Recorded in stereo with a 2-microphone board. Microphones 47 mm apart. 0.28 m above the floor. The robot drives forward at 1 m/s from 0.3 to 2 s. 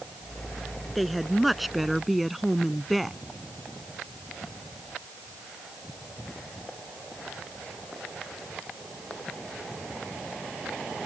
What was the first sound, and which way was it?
A woman speaking, centre (ahead or behind).